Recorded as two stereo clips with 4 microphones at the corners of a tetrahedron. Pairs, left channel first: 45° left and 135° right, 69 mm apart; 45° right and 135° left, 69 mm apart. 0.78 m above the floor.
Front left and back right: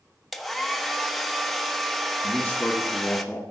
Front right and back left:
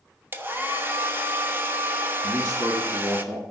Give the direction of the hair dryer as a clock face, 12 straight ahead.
8 o'clock.